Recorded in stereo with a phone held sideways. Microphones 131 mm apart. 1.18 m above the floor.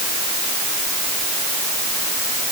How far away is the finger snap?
No finger snap in this recording.